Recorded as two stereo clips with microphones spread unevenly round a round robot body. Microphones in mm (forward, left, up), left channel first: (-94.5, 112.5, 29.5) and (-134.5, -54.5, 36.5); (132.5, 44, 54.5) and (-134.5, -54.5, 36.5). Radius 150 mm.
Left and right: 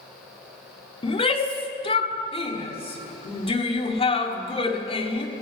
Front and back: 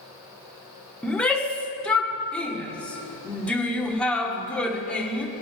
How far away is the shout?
About 1.5 m.